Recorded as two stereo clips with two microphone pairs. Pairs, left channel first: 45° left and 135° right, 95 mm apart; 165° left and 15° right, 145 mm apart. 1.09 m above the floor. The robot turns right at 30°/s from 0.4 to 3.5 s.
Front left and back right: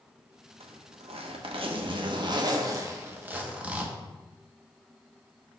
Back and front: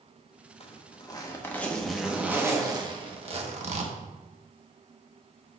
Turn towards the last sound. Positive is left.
turn(degrees=-60)